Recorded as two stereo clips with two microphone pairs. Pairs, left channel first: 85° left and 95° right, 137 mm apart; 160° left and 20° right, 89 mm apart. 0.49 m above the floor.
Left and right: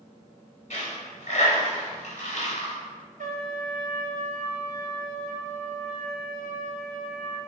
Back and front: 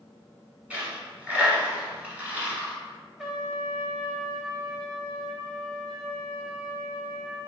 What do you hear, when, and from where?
0.7 s a dropped coin: 60° left, 1.1 m
3.2 s a trumpet: 105° right, 0.5 m